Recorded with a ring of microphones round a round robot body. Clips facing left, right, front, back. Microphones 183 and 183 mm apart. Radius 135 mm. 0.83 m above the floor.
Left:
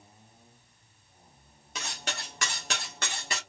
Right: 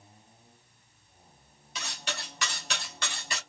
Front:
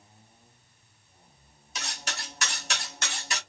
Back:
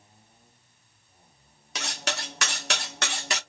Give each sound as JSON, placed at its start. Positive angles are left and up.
{"t": 1.8, "sound": "cutlery clinking", "azimuth_deg": 150, "distance_m": 1.0}